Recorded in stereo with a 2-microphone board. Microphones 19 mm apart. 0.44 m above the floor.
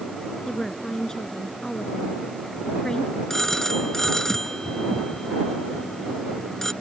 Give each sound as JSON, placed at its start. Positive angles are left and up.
{"t": 0.5, "sound": "a woman speaking", "side_deg": 35}
{"t": 3.3, "sound": "a phone ringing", "side_deg": 25}